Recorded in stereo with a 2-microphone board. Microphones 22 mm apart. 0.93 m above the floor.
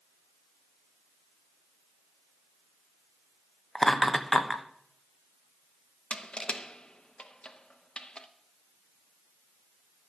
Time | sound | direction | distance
3.8 | laughter | 20° left (ahead or behind) | 1.0 m
6.1 | crushing | 55° left (ahead or behind) | 0.8 m